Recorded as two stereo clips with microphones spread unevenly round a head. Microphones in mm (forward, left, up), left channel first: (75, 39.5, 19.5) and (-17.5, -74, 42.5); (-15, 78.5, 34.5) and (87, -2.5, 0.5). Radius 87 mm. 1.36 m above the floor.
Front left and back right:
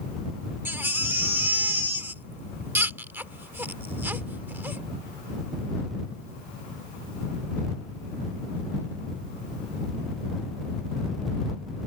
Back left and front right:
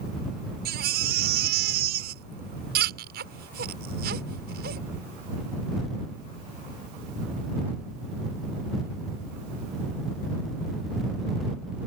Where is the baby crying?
55° right.